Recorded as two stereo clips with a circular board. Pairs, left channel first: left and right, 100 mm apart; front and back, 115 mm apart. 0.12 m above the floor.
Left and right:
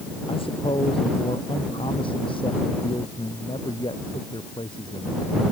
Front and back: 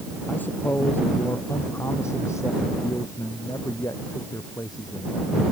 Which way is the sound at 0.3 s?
75° left.